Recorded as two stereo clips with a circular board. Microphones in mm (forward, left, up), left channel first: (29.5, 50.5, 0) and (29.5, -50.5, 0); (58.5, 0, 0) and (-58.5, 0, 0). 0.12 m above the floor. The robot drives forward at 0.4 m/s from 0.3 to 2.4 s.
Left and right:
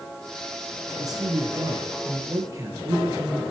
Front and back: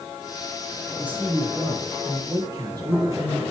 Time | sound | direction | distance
1.0 | a man speaking | 105° right | 1.4 m